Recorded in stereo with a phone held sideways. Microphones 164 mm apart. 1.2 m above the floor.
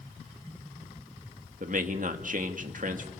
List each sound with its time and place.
1.6 s a man speaking: 55° right (ahead or behind), 1.7 m